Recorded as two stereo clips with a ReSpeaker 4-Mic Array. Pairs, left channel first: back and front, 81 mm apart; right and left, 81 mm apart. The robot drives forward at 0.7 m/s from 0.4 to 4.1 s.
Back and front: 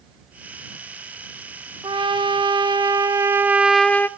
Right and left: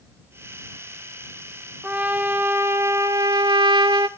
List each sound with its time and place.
1.8 s a trumpet: 20° left, 1.4 m; by 4.1 s 115° left, 0.6 m